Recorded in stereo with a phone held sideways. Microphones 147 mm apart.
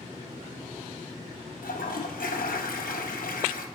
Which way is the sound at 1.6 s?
75° left (ahead or behind).